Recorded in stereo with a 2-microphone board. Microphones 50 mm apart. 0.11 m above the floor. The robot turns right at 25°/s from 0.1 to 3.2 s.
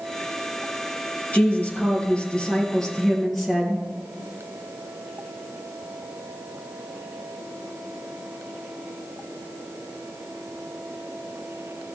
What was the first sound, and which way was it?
A woman speaking, 130° left.